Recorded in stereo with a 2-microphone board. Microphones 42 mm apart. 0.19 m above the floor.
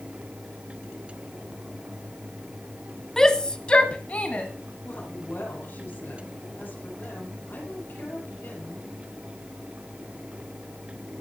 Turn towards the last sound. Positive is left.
turn(degrees=55)  # may be behind; listen again after turning